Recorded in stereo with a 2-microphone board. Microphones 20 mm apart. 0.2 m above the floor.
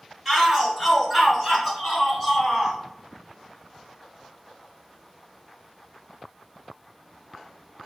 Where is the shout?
10° right (ahead or behind), 1.8 m; by 2.8 s 20° right (ahead or behind), 1.6 m.